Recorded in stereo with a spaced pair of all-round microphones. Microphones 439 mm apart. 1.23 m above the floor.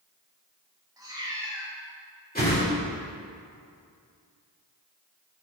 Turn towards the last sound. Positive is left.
turn(degrees=20)  # may be behind; listen again after turning